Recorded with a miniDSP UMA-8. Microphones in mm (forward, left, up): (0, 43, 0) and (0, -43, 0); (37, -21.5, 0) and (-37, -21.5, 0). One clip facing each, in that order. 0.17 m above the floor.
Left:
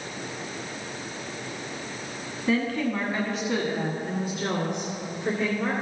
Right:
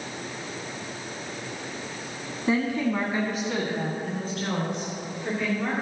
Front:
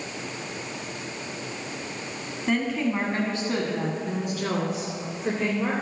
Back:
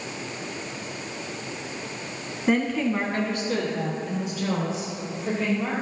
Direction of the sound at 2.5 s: 110° right.